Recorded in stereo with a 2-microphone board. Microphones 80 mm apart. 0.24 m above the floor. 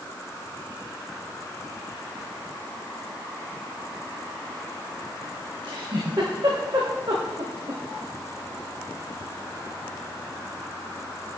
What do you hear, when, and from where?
5.6 s a giggle: 55° right (ahead or behind), 6 m